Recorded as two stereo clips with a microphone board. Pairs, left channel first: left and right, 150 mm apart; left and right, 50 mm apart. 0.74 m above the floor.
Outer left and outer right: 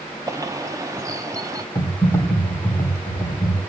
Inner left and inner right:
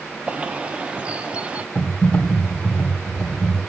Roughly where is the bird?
Right.